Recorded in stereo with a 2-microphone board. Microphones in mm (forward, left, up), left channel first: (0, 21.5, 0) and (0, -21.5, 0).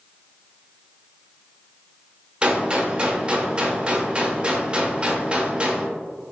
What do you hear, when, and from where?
2.4 s a gunshot: 25° right (ahead or behind), 0.8 m